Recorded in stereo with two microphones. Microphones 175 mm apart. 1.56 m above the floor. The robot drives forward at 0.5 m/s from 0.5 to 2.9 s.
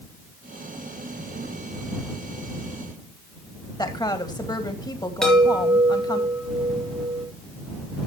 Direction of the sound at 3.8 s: 25° left (ahead or behind).